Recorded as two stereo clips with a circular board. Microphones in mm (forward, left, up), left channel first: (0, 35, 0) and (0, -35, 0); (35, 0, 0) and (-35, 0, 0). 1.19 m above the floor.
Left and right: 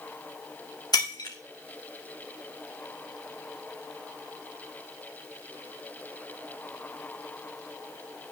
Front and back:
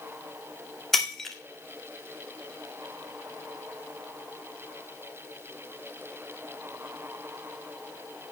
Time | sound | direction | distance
0.9 | breaking glass | 80° left | 1.6 m